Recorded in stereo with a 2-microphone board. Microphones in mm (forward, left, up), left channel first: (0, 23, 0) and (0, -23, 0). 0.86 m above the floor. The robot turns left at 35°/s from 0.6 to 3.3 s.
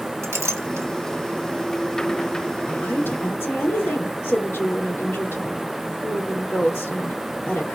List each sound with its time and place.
0.2 s a clink: 80° right, 1.3 m; by 0.9 s 85° right, 1.3 m
2.7 s a woman speaking: 45° left (ahead or behind), 3 m; by 7.8 s 70° left (ahead or behind), 3 m